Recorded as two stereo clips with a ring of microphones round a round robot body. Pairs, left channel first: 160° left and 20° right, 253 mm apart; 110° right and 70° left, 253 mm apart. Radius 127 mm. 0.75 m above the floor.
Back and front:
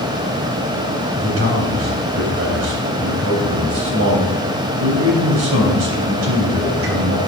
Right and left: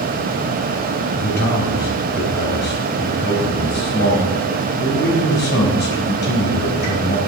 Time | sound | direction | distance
1.2 | a man speaking | 60° right | 3.5 m